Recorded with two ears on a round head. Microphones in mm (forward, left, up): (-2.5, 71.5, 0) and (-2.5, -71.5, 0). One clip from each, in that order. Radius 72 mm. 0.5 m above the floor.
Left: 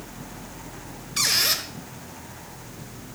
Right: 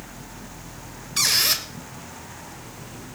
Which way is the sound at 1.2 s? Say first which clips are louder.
Right 1 dB; 15° right (ahead or behind).